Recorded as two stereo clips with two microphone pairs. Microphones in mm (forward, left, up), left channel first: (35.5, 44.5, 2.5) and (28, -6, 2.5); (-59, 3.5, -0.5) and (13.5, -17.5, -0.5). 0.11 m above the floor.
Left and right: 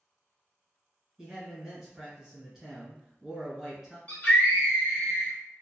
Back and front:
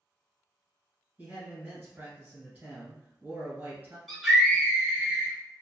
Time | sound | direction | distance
1.2 | a man speaking | 20° right | 1.5 m
4.1 | a scream | 75° left | 1.2 m